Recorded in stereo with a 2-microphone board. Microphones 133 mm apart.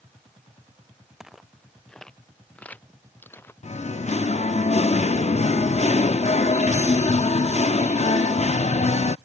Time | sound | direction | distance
1.2 | footsteps | 5° right (ahead or behind) | ?
3.6 | singing | 60° left (ahead or behind) | ?